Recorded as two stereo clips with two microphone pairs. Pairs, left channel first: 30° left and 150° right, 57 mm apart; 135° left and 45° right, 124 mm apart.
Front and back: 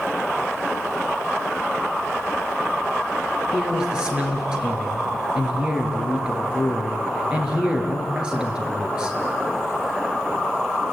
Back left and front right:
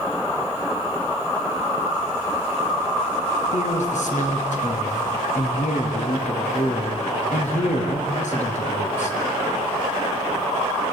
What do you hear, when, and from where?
3.5 s a man speaking: 135° left, 4.5 m